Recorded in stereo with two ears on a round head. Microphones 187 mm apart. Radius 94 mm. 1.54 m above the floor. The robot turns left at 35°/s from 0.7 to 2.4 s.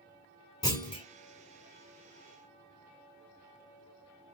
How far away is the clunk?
About 1.7 m.